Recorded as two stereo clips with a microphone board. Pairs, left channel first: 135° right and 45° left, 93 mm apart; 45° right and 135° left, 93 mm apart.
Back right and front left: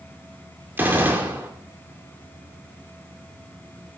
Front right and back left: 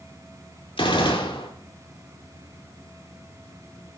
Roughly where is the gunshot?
Ahead right.